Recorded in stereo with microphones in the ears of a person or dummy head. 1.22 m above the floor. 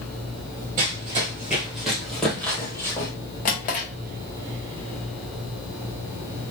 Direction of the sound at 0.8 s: 25° right (ahead or behind).